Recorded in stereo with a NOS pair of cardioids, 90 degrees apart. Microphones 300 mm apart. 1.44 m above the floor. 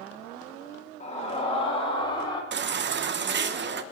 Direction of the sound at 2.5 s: 40° right.